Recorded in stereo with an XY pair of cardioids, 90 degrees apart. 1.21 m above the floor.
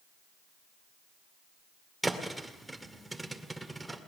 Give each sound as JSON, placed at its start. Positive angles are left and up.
{"t": 2.0, "sound": "a thud", "azimuth_deg": -10, "distance_m": 2.0}